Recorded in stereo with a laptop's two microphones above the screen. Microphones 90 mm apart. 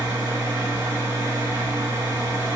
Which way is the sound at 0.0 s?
50° right (ahead or behind).